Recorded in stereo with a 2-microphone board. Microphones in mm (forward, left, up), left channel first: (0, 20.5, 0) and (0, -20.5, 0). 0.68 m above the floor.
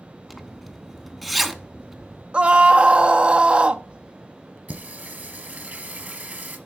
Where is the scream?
30° right (ahead or behind), 0.6 m.